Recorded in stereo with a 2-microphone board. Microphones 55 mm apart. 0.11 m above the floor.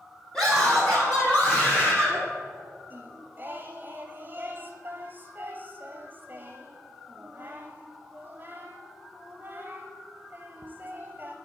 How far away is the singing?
About 1.0 m.